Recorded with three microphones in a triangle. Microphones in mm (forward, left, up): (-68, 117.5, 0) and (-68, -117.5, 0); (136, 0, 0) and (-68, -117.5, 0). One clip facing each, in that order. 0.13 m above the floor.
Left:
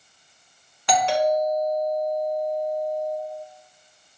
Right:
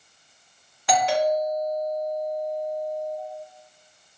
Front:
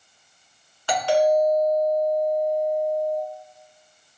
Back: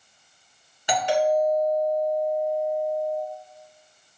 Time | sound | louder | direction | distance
0.9 | a doorbell | left 1 dB, front 3 dB | 175° right | 1.6 m